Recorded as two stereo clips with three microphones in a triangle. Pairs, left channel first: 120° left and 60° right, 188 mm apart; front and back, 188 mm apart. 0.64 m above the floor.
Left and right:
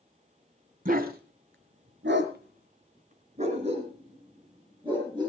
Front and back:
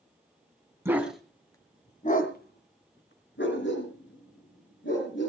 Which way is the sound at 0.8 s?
105° right.